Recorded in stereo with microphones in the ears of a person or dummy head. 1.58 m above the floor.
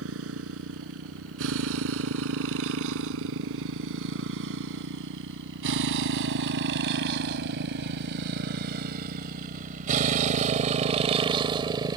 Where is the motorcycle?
85° right; by 12.0 s 25° right (ahead or behind).